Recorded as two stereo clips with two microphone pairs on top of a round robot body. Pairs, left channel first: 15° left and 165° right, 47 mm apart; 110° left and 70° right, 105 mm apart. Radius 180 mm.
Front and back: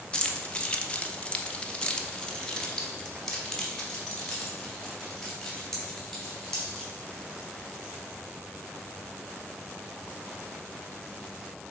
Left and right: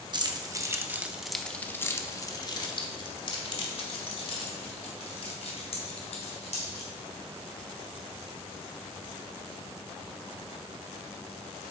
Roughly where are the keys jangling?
Ahead right.